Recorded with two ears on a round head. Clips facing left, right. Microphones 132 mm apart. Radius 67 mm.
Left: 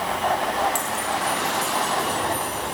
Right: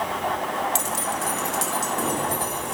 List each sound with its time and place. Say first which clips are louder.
0.8 s keys jangling: left 2 dB; 25° right (ahead or behind), 0.8 m; by 2.7 s 65° right (ahead or behind), 3 m